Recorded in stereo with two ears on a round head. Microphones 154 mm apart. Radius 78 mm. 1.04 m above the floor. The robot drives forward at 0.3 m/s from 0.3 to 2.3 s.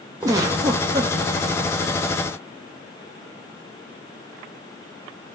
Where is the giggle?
20° right (ahead or behind), 0.7 m; by 1.1 s 15° right (ahead or behind), 0.8 m.